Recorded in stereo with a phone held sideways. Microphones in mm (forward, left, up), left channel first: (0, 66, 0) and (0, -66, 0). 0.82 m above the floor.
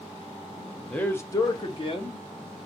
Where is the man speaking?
5° left (ahead or behind), 0.8 m; by 2.2 s 45° left (ahead or behind), 0.9 m.